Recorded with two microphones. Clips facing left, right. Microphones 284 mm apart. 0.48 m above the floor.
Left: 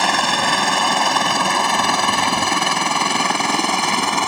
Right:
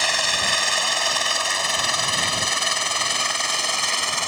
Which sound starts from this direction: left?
A helicopter, at 0.0 s.